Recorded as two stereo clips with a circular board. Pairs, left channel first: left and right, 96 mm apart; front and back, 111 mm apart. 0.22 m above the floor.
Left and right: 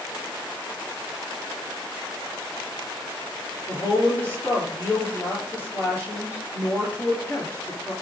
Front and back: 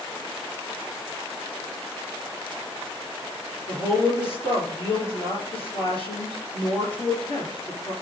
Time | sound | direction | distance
3.7 | a woman speaking | 25° left | 3.5 m